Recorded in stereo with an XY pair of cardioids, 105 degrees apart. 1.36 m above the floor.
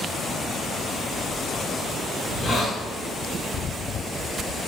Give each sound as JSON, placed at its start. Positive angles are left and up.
{"t": 2.2, "sound": "a hiss", "azimuth_deg": 15, "distance_m": 1.6}